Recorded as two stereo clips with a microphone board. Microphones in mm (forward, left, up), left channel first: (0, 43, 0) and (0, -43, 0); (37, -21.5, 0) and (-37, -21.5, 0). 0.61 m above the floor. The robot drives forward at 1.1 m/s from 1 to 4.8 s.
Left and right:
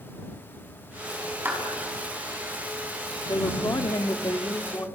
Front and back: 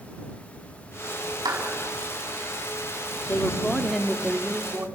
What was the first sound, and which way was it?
A clap, 155° right.